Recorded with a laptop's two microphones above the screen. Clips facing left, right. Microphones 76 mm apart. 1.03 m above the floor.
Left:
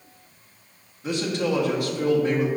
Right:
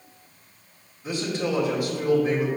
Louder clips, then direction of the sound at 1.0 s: Left 2 dB; 75° left (ahead or behind).